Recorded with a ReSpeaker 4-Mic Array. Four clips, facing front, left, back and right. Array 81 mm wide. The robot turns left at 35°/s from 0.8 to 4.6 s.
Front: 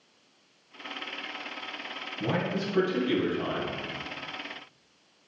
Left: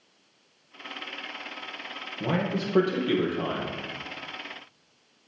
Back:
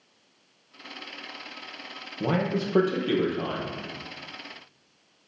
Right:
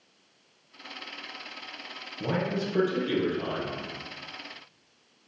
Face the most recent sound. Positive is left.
turn(degrees=90)